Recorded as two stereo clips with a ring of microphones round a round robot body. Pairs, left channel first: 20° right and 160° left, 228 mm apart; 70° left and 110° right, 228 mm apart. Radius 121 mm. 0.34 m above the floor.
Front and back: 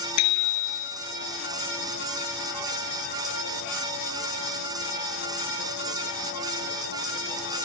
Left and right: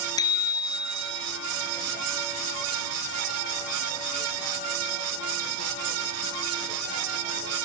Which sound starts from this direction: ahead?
A bicycle bell, at 0.2 s.